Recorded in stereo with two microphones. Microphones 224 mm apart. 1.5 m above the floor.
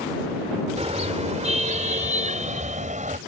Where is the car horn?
30° right (ahead or behind); by 3.2 s 35° right (ahead or behind).